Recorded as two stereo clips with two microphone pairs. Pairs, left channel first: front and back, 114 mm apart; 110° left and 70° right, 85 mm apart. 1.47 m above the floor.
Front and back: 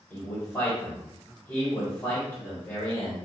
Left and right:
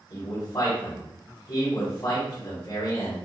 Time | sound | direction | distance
0.1 | a man speaking | 70° left | 1.6 m